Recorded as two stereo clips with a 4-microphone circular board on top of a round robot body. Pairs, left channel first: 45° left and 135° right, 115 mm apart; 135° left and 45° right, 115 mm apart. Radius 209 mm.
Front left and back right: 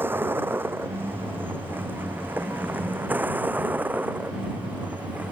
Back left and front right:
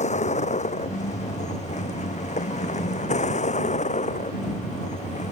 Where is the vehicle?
150° left.